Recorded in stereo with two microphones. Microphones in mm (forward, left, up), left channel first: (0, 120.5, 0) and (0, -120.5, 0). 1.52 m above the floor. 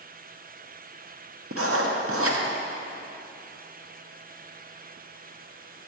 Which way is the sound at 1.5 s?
65° right (ahead or behind).